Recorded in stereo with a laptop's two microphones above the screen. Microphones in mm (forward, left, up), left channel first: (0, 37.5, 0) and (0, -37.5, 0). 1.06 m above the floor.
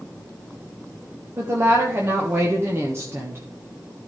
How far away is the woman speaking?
About 1.0 m.